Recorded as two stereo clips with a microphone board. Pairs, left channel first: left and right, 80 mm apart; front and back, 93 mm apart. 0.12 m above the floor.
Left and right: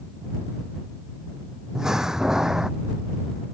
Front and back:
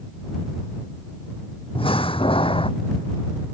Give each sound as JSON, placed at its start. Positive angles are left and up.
{"t": 1.8, "sound": "a door slam", "azimuth_deg": -5}